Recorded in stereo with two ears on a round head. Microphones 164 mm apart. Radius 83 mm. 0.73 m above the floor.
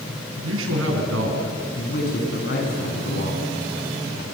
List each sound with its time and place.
0.4 s a man speaking: 80° right, 6.5 m
1.8 s a man speaking: 60° left (ahead or behind), 7 m